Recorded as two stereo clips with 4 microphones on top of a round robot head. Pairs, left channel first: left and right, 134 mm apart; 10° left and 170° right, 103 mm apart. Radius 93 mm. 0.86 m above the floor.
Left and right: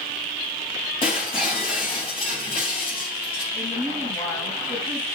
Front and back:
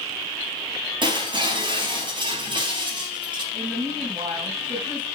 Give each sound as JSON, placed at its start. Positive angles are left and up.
{"t": 1.0, "sound": "breaking glass", "azimuth_deg": 150, "distance_m": 4.5}
{"t": 3.5, "sound": "a woman speaking", "azimuth_deg": 155, "distance_m": 9.0}